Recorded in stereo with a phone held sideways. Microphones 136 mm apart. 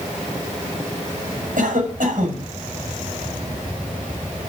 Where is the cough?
80° right, 6.5 m.